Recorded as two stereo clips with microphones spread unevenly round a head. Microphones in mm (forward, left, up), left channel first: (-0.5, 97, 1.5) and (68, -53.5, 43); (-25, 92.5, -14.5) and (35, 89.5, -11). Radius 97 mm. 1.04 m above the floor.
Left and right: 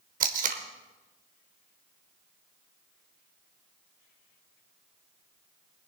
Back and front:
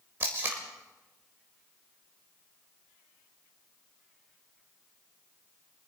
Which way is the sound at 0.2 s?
60° right.